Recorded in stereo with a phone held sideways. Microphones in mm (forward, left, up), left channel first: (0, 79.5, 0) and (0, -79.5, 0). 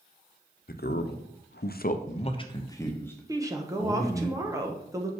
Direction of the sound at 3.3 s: 20° right (ahead or behind).